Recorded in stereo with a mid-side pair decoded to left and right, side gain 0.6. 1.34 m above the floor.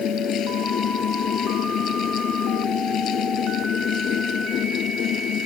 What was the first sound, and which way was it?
A fan, 55° left.